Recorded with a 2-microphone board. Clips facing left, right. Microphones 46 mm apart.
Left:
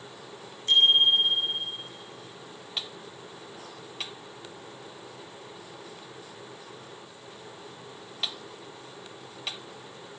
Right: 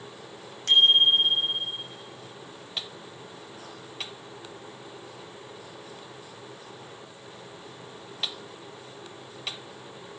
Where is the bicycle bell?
80° right, 6.5 m.